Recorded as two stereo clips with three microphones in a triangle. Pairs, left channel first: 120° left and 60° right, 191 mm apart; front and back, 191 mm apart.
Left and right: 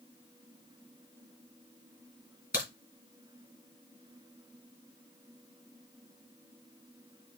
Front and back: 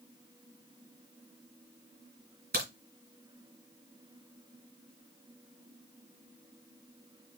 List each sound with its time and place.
2.5 s a crack: 150° left, 3 m